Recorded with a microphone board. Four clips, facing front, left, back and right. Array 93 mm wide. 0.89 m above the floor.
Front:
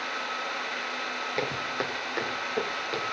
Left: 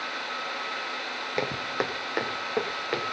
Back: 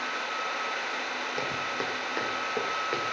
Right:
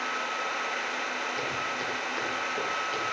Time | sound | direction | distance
1.4 | footsteps | 70° left | 2.0 m